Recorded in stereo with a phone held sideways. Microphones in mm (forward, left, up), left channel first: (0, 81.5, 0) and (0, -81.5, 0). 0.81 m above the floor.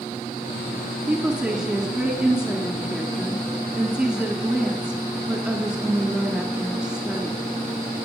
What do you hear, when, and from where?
1.1 s a woman speaking: 5° right (ahead or behind), 2 m